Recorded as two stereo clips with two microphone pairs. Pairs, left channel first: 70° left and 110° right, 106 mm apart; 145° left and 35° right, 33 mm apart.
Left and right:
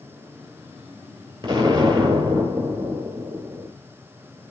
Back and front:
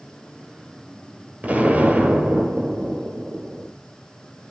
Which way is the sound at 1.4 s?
65° right.